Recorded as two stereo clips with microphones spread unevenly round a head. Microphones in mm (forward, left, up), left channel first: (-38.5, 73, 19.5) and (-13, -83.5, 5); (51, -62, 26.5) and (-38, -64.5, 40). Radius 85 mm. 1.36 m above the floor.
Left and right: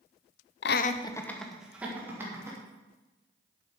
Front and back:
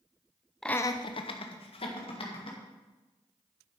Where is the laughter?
85° left, 0.6 m; by 2.6 s 5° right, 2.5 m.